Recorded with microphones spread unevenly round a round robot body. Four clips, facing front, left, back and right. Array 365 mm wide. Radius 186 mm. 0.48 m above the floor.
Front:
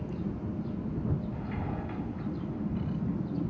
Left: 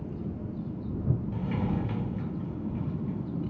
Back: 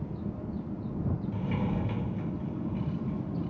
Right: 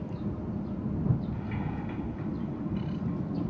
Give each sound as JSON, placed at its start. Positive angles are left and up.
{"t": 1.3, "sound": "a sliding door", "azimuth_deg": 135}